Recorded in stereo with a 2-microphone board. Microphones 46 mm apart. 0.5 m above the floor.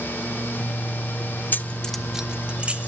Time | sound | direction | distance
1.5 | keys jangling | 50° left (ahead or behind) | 0.5 m